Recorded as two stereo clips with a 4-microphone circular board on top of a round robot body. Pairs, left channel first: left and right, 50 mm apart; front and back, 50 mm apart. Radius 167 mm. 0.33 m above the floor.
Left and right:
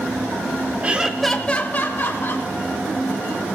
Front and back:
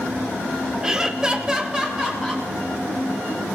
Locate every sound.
0.8 s laughter: 115° right, 1.3 m; by 2.5 s 105° left, 2 m